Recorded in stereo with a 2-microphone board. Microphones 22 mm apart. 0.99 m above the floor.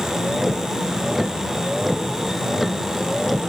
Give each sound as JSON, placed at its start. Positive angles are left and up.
{"t": 0.0, "sound": "a vehicle", "side_deg": -15}